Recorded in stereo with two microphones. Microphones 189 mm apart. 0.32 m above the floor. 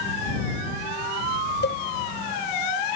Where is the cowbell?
70° left (ahead or behind).